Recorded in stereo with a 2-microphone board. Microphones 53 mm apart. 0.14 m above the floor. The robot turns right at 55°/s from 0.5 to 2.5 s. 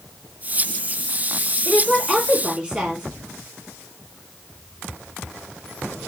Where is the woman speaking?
Centre (ahead or behind), 1.6 m; by 3.0 s 15° right (ahead or behind), 1.6 m.